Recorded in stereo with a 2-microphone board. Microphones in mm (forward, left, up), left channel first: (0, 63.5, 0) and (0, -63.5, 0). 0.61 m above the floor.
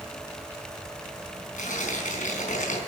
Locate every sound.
1.6 s tearing paper: 85° left, 4.5 m